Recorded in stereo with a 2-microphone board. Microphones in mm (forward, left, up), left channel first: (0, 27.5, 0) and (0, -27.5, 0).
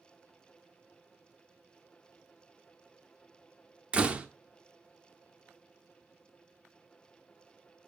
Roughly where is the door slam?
Right.